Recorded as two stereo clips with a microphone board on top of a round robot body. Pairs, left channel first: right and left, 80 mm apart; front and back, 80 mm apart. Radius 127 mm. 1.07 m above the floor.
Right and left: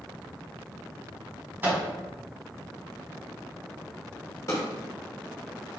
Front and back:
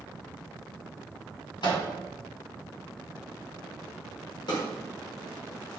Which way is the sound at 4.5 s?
35° right.